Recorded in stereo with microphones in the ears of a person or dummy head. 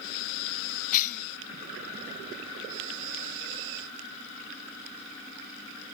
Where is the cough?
40° left (ahead or behind), 1.7 m.